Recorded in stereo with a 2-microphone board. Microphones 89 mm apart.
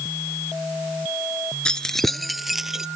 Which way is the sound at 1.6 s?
10° left (ahead or behind).